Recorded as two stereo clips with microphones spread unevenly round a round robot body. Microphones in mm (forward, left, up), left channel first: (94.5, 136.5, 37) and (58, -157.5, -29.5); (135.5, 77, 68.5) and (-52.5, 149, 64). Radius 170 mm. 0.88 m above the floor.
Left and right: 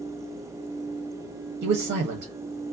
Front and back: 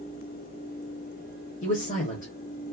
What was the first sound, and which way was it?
A man speaking, 70° right.